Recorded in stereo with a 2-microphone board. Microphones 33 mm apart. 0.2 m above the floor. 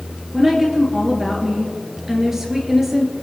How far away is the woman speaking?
About 3 m.